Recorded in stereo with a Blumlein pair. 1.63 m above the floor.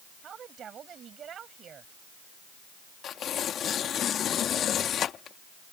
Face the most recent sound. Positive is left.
turn(degrees=25)